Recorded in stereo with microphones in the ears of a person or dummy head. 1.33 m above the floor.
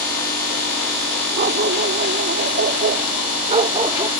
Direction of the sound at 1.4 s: 40° right (ahead or behind).